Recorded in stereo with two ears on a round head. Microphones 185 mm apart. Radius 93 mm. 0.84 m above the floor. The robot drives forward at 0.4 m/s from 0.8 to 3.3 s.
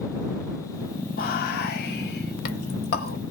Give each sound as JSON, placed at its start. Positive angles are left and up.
{"t": 1.2, "sound": "whispering", "side_deg": 45, "distance_m": 1.2}